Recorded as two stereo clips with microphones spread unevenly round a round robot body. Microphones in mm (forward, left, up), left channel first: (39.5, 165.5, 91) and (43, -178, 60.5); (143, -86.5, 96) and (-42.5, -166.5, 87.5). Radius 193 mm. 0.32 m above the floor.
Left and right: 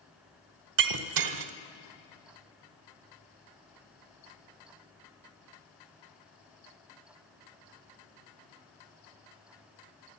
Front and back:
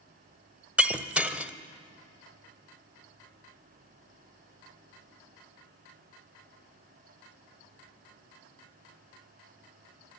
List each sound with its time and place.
0.8 s breaking glass: 75° right, 1.2 m